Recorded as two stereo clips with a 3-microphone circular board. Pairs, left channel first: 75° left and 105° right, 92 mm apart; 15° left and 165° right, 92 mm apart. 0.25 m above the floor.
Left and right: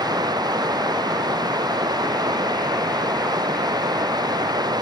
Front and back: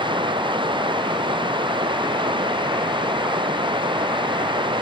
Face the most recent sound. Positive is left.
turn(degrees=-145)